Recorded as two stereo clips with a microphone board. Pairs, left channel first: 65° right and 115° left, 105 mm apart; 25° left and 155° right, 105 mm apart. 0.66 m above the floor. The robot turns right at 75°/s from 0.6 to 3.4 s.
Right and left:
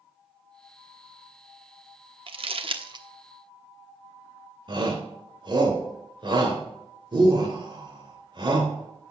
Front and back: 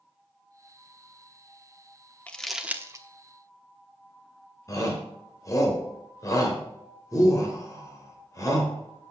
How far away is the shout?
About 3 m.